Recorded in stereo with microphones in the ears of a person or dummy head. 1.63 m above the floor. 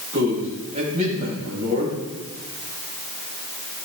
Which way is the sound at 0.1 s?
35° right (ahead or behind).